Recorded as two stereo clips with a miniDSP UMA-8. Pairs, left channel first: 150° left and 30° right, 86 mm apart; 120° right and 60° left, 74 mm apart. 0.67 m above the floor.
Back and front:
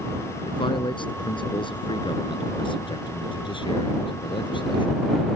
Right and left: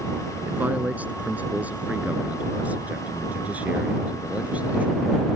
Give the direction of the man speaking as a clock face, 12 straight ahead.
8 o'clock.